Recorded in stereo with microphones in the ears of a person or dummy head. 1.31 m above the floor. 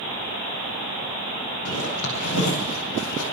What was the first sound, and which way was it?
A zipper, 80° left.